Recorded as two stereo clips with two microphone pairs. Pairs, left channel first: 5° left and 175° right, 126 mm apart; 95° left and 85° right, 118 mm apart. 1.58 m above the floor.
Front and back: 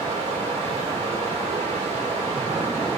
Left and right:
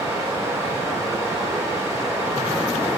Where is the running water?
145° right, 2.5 m.